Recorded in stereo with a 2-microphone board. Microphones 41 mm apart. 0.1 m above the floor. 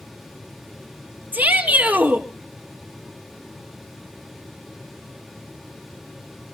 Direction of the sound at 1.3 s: 50° right (ahead or behind).